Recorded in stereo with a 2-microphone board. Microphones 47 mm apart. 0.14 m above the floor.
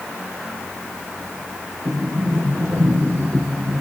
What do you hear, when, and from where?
1.9 s a sliding door: 80° right, 4.5 m